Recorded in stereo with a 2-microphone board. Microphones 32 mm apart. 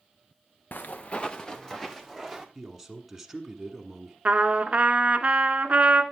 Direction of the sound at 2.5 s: 5° right (ahead or behind).